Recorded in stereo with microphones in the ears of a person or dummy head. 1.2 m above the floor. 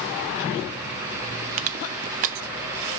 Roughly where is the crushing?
Right.